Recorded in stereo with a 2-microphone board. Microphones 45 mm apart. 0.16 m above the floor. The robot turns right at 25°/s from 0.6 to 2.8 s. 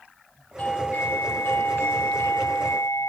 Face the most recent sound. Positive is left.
turn(degrees=85)